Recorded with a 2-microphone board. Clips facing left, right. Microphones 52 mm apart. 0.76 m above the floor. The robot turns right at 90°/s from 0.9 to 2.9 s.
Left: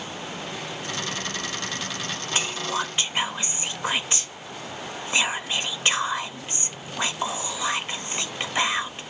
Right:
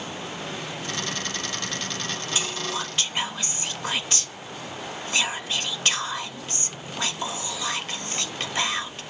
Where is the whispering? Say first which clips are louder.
Left 4 dB; 100° left, 0.5 m; by 9.0 s 150° left, 0.5 m.